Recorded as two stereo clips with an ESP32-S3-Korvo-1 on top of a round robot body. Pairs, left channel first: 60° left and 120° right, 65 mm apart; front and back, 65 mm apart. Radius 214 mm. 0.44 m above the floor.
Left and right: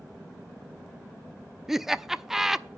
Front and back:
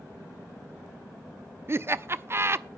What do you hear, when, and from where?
1.7 s laughter: 155° left, 0.8 m